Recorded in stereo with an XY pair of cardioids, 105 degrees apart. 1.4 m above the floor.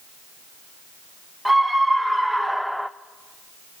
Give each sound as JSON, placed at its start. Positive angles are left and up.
{"t": 1.4, "sound": "a scream", "azimuth_deg": 0, "distance_m": 1.7}